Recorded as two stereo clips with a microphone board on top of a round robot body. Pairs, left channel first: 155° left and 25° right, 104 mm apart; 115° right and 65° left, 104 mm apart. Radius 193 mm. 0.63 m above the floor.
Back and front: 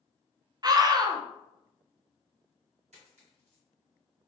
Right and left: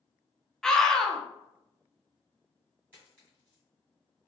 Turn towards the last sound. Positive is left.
turn(degrees=-5)